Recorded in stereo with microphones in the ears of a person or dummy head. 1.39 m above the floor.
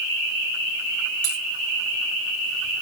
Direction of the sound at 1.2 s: 60° right (ahead or behind).